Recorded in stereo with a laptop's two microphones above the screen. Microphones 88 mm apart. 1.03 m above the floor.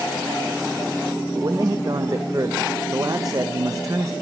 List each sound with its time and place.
1.4 s a man speaking: 40° right (ahead or behind), 0.5 m